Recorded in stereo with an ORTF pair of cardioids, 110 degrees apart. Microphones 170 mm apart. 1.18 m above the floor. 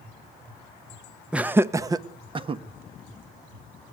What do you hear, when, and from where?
1.3 s laughter: 5° right, 0.9 m; by 2.6 s 35° right, 1.5 m